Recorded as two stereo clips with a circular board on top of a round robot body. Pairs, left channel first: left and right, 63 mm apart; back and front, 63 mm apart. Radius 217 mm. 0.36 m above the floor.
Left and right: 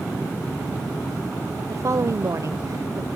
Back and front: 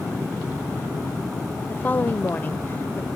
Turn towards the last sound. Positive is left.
turn(degrees=-120)